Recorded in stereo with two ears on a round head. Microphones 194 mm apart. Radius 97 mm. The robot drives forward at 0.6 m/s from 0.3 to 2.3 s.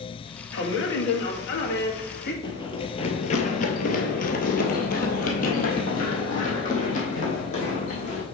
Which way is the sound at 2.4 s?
25° left (ahead or behind).